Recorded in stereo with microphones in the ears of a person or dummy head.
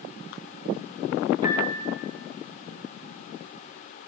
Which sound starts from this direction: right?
A piano, at 1.4 s.